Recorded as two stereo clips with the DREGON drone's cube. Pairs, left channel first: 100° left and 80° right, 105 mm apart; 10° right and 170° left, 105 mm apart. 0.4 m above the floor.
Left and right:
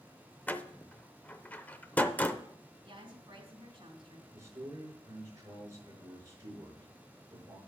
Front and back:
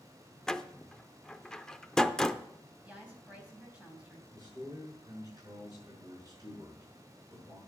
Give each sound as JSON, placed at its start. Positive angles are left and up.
{"t": 0.5, "sound": "a door slam", "azimuth_deg": 65, "distance_m": 0.5}
{"t": 2.8, "sound": "a woman speaking", "azimuth_deg": -115, "distance_m": 3.0}
{"t": 4.3, "sound": "a man speaking", "azimuth_deg": -135, "distance_m": 5.5}